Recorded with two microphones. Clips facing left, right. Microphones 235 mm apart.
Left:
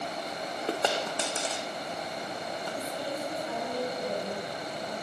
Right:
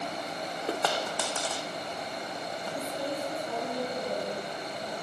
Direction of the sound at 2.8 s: 5° left (ahead or behind).